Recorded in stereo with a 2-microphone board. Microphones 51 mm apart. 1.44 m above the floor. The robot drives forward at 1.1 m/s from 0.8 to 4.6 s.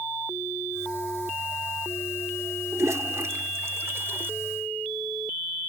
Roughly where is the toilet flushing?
Right.